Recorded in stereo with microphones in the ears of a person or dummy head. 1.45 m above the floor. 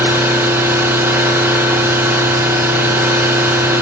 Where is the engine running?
10° right (ahead or behind), 1.8 m.